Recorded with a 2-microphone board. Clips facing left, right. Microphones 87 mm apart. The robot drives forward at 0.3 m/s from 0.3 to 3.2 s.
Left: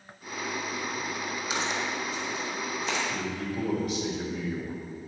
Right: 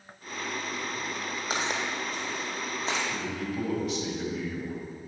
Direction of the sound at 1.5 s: 50° right (ahead or behind).